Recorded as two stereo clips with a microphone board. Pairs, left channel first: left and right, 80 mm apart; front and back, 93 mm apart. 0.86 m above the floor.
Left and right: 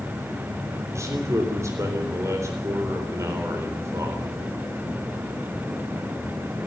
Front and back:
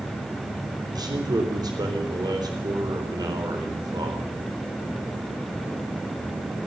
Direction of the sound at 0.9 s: 140° right.